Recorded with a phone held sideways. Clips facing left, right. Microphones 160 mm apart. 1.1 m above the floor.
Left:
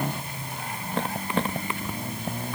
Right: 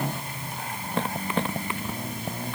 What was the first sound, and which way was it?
Only background noise.